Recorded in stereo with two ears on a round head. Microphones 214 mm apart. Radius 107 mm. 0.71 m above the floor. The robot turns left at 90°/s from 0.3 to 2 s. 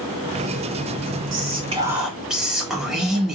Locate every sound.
1.3 s whispering: 115° right, 1.8 m; by 3.4 s straight behind, 1.8 m